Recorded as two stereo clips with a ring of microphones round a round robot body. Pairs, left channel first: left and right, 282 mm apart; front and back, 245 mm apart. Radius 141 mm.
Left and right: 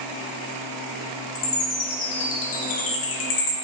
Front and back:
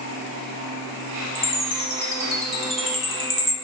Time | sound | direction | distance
1.4 | a chime | 70° left | 0.9 m